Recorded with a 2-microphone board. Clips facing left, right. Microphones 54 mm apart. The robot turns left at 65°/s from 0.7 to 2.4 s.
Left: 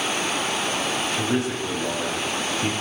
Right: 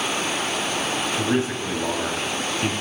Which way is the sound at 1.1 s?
15° right.